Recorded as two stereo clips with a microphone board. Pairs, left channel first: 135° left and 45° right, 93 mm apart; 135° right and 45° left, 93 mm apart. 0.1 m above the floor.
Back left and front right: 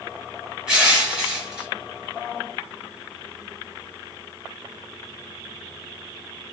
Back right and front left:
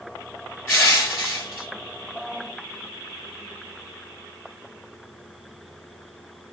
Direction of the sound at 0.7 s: 110° right.